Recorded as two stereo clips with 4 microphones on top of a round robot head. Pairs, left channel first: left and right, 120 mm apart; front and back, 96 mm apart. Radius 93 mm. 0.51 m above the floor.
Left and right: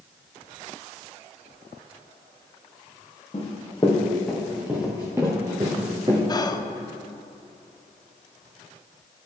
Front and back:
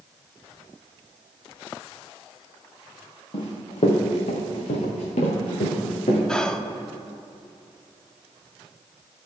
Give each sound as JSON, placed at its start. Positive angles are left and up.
{"t": 3.3, "sound": "running footsteps", "azimuth_deg": 30, "distance_m": 2.5}
{"t": 6.3, "sound": "whispering", "azimuth_deg": 75, "distance_m": 1.0}